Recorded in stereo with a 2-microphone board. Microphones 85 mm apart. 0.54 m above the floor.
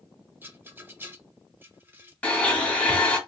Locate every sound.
0.4 s a rattle: 25° right (ahead or behind), 0.6 m
2.2 s a blender: 15° left (ahead or behind), 1.2 m